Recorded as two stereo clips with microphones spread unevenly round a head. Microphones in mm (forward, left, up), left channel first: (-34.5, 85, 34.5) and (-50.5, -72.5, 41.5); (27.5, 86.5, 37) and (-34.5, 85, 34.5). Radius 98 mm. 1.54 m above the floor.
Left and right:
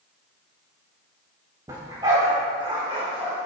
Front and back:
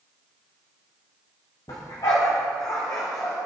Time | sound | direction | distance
1.7 | a dog barking | 25° right | 3.5 m